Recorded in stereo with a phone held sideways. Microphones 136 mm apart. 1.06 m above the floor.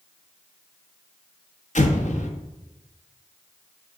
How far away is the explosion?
About 1.0 m.